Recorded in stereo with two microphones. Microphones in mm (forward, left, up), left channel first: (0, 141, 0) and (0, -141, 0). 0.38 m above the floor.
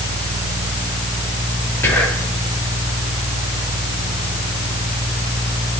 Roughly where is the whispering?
Centre.